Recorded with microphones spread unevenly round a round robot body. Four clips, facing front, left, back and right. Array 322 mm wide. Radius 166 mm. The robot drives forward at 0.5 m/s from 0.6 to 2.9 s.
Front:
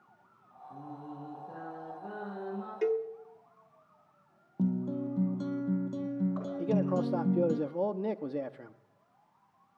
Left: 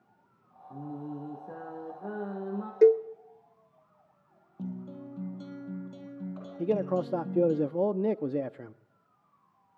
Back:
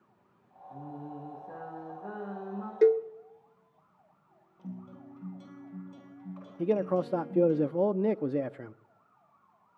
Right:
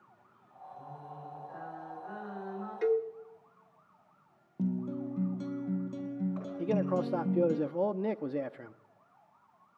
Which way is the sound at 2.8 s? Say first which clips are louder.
Left 9 dB, back 7 dB; 120° left.